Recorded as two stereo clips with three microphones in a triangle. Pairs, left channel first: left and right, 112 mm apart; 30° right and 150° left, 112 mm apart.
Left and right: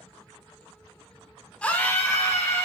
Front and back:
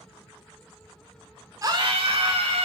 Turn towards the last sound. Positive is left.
turn(degrees=155)